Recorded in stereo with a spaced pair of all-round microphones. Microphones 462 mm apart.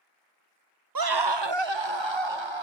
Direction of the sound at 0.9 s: 45° right (ahead or behind).